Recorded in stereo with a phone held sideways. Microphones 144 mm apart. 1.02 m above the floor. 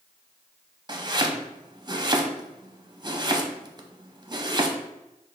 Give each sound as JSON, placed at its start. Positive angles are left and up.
{"t": 0.9, "sound": "chopping", "side_deg": -30, "distance_m": 0.5}